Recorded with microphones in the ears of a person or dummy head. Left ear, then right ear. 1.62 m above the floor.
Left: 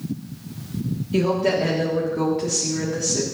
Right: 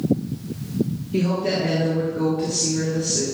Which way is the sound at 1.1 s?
40° left (ahead or behind).